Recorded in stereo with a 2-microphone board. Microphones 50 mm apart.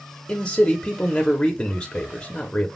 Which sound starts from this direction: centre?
A man speaking, at 0.3 s.